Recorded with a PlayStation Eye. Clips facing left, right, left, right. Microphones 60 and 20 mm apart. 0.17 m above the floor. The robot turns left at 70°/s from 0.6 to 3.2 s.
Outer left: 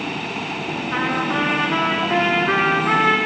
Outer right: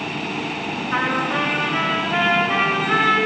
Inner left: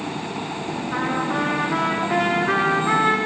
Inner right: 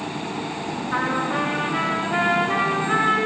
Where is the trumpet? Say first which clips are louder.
Outer right 1 dB, inner right 1 dB; straight behind, 6 m; by 3.2 s 20° left, 6 m.